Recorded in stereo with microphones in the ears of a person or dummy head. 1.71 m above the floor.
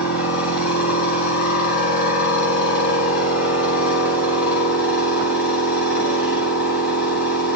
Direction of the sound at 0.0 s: 60° left (ahead or behind).